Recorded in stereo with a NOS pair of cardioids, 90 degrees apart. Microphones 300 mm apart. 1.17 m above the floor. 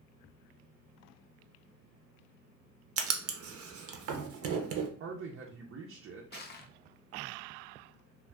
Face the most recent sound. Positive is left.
turn(degrees=35)